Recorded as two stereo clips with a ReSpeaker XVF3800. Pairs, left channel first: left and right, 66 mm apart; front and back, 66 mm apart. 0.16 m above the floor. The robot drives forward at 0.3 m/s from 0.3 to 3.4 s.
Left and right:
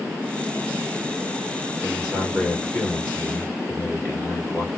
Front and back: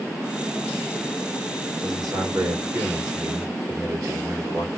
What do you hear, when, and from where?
1.8 s a man speaking: 165° left, 3 m